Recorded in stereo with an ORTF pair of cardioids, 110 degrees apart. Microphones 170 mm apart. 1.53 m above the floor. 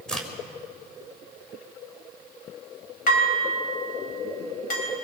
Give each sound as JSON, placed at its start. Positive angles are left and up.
{"t": 0.1, "sound": "a crack", "azimuth_deg": 5, "distance_m": 4.0}
{"t": 3.1, "sound": "dishes clattering", "azimuth_deg": 50, "distance_m": 5.5}